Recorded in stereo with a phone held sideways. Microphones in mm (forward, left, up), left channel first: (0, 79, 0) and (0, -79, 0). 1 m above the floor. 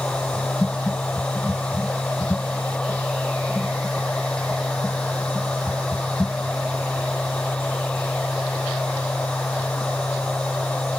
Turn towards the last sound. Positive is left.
turn(degrees=5)  # may be behind; listen again after turning